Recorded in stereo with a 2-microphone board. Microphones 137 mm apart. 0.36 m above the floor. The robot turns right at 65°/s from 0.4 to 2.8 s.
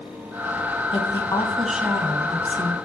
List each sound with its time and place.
0.9 s a woman speaking: 130° left, 2.5 m; by 2.8 s 110° right, 2.5 m